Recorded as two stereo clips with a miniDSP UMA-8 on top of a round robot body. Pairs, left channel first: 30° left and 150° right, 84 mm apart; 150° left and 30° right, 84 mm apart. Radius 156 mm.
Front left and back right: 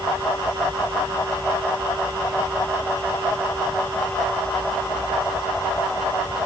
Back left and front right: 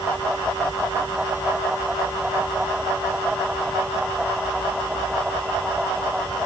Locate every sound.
Only background noise.